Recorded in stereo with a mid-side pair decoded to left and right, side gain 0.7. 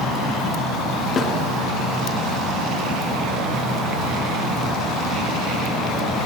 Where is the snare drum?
30° left, 4 m.